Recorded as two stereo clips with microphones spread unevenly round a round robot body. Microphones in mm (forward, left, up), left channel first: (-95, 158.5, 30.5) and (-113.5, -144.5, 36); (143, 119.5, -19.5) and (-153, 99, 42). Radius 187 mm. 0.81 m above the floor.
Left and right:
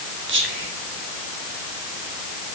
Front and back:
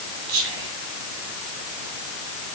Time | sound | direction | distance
0.3 | whispering | 145° right | 3.5 m